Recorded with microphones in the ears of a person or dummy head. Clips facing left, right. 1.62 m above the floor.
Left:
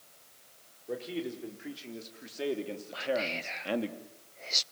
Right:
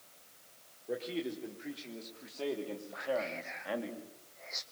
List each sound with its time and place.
0.9 s a man speaking: 5° left (ahead or behind), 4 m; by 3.9 s 50° left (ahead or behind), 2.5 m
2.9 s whispering: 50° left (ahead or behind), 0.9 m